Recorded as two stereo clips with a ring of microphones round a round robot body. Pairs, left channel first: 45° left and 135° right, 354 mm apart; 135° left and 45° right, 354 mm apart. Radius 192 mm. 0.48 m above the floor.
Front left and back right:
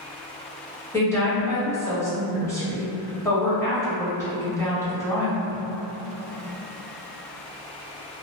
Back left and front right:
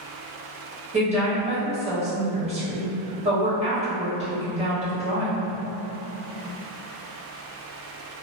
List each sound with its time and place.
0.9 s a woman speaking: 20° right, 1.3 m